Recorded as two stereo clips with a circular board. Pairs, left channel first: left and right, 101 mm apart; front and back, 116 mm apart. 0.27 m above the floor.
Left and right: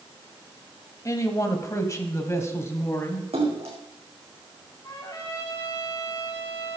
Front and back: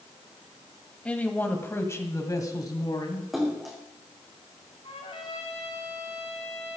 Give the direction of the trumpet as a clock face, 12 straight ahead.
11 o'clock.